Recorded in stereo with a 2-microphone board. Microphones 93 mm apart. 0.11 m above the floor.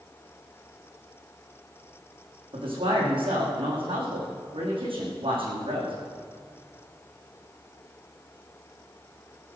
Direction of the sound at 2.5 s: 70° right (ahead or behind).